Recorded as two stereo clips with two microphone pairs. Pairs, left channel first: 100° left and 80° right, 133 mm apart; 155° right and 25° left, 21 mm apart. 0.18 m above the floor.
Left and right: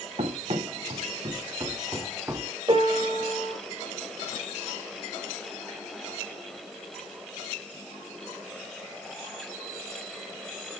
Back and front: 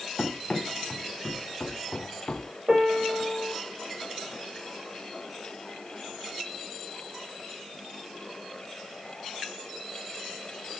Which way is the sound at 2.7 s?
30° right.